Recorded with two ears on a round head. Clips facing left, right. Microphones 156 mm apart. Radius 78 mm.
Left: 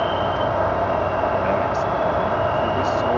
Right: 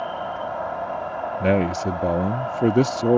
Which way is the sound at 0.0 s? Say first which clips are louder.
Left 7 dB; 85° left.